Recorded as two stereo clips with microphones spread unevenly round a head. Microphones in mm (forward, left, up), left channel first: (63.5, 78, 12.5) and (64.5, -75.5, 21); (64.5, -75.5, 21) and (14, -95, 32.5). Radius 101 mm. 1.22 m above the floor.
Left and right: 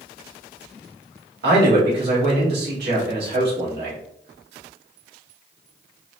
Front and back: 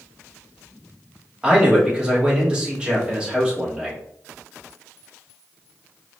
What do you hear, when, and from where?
1.4 s a man speaking: 80° right, 2 m